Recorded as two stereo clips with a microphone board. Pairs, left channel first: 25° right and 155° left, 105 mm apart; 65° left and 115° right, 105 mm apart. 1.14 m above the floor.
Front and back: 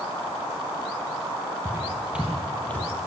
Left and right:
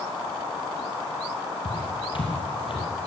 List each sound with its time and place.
1.6 s footsteps: 95° left, 2 m; by 2.9 s 45° left, 2.0 m